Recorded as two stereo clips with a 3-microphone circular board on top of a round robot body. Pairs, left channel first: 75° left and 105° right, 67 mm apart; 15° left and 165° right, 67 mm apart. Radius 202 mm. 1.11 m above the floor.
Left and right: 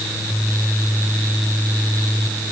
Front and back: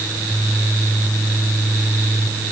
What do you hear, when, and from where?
Only background noise.